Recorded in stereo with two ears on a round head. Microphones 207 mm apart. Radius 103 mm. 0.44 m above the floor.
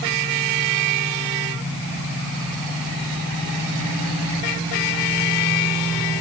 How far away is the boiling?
I don't hear boiling.